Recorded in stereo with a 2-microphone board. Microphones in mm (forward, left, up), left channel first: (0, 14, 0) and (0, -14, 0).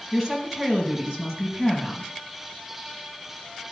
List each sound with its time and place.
0.1 s a woman speaking: 5° left (ahead or behind), 3.5 m